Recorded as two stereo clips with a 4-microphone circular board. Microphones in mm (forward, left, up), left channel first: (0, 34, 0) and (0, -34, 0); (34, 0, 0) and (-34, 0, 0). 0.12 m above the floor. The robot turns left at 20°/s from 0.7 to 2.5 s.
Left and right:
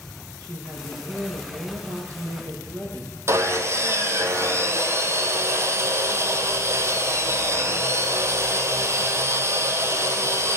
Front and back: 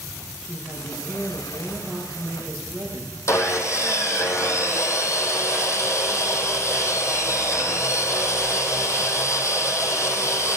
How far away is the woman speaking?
About 3 m.